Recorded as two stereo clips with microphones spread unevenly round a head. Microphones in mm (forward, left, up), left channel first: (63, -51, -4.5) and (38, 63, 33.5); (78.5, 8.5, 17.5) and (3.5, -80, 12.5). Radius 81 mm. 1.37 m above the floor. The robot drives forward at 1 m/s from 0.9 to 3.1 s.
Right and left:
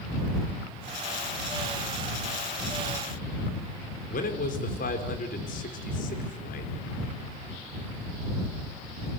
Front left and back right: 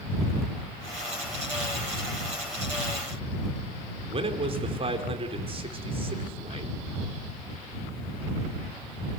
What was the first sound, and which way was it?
A man speaking, 90° right.